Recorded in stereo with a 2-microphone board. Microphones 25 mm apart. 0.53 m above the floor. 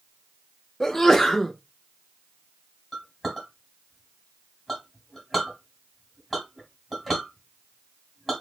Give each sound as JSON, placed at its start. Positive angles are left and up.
{"t": 0.8, "sound": "a sneeze", "side_deg": 10, "distance_m": 0.7}
{"t": 2.9, "sound": "a clink", "side_deg": 0, "distance_m": 2.5}